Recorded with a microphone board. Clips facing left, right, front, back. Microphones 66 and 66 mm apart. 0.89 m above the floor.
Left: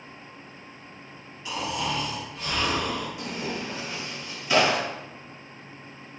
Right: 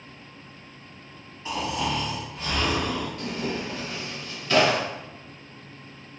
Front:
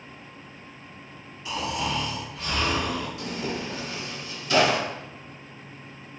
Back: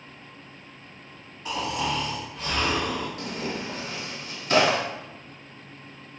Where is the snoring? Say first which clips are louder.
Right 2 dB, back 1 dB; 140° right, 1.6 m.